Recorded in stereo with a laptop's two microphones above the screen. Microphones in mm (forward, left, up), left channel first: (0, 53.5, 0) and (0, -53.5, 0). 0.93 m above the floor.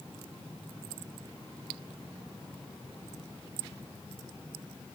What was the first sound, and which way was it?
Only background noise.